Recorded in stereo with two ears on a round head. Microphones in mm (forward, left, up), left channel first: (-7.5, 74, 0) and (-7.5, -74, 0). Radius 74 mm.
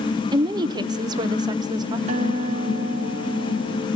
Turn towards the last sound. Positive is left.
turn(degrees=-45)  # may be behind; listen again after turning